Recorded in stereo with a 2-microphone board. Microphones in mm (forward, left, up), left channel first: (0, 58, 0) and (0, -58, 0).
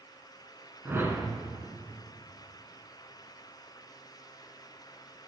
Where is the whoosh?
20° right (ahead or behind), 1.3 m.